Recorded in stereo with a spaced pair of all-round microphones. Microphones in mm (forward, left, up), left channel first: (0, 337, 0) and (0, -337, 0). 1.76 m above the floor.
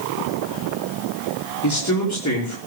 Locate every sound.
1.6 s a man speaking: 25° left (ahead or behind), 5 m